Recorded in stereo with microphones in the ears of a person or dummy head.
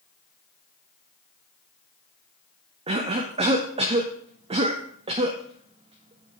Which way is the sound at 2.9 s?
30° right (ahead or behind).